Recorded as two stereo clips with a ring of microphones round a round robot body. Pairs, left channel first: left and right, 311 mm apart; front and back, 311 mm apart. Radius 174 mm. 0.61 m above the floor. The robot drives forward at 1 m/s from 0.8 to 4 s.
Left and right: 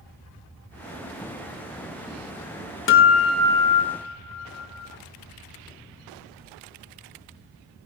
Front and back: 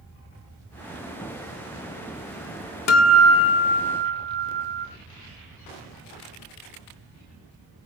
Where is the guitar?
40° left, 2.0 m; by 4.9 s 70° left, 1.3 m.